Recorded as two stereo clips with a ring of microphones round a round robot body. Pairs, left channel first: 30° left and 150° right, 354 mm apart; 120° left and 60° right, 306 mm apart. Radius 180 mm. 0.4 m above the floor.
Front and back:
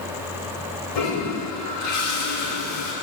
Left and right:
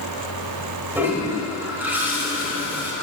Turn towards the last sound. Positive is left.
turn(degrees=25)